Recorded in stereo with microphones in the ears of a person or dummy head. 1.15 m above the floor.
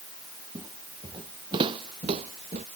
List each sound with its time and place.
0.6 s footsteps: 25° right (ahead or behind); by 2.6 s 40° right (ahead or behind)